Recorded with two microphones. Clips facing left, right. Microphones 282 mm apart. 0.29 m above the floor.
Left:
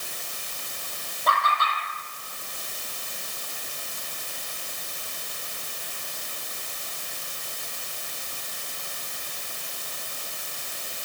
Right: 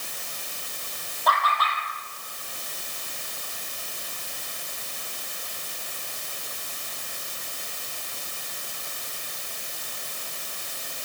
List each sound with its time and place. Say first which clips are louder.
1.3 s laughter: even; 25° left (ahead or behind), 7.5 m